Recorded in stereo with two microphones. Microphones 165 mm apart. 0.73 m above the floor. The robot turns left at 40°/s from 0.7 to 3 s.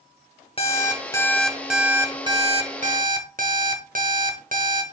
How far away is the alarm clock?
About 1.1 m.